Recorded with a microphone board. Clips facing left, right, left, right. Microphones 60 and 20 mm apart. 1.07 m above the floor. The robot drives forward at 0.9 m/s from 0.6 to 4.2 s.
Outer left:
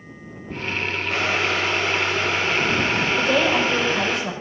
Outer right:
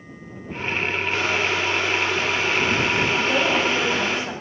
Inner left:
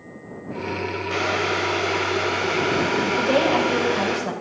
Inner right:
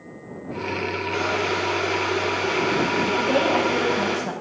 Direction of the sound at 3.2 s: 85° left.